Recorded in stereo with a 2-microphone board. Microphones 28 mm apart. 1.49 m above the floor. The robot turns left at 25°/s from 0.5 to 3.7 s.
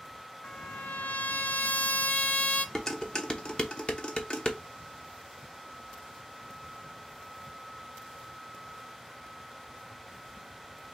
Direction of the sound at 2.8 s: 20° left (ahead or behind).